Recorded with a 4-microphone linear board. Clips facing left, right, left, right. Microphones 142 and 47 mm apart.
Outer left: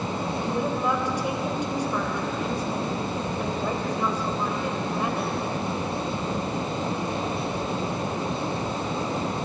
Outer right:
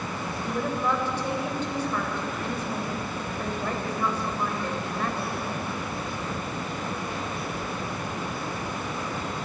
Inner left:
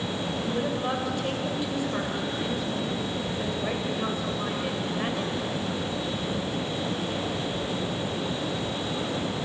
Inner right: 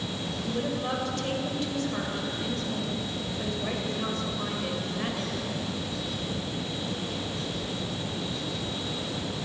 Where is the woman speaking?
15° left (ahead or behind), 4 m.